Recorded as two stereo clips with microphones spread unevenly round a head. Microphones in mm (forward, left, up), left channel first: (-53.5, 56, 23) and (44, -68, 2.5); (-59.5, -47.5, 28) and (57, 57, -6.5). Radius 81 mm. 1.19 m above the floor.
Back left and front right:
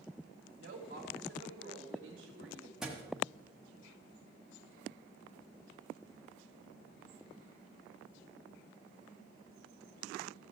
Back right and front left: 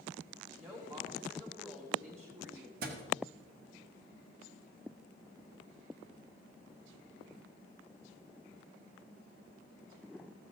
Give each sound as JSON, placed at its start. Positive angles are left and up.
{"t": 0.6, "sound": "a woman speaking", "azimuth_deg": -35, "distance_m": 1.5}
{"t": 2.8, "sound": "a thud", "azimuth_deg": 45, "distance_m": 1.2}